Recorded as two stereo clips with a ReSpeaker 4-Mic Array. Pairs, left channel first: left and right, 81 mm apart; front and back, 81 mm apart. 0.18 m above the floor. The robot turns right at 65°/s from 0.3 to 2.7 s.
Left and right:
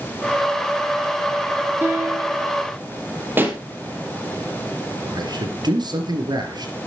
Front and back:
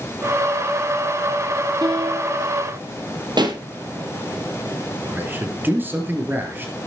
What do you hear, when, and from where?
1.8 s a piano: 155° right, 4 m; by 2.5 s 110° right, 4 m
3.4 s a pop: 155° right, 2.5 m
5.0 s a man speaking: 115° right, 3.5 m